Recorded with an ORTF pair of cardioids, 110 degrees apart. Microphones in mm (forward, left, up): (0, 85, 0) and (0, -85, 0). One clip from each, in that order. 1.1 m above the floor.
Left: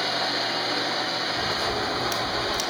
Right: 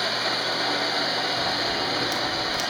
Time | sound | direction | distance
1.4 | a crack | 15° left | 1.5 m